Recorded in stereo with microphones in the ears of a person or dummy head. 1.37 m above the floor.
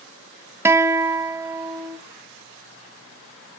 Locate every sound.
0.7 s a guitar: 20° right (ahead or behind), 1.2 m